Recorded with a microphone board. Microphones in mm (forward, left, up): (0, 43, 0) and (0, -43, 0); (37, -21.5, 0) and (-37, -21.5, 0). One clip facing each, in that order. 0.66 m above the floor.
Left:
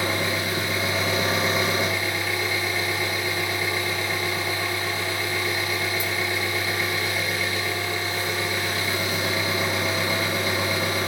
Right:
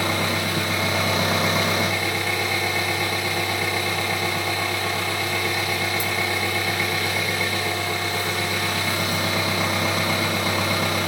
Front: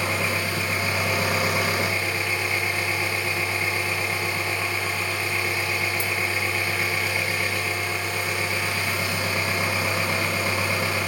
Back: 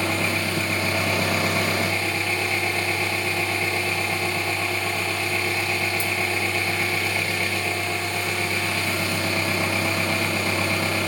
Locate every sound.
0.0 s an engine running: 70° right, 2.5 m